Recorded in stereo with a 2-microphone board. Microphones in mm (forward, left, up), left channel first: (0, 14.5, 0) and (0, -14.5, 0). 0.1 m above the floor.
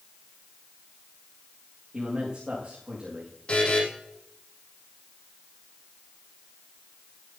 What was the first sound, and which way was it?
A man speaking, 35° right (ahead or behind).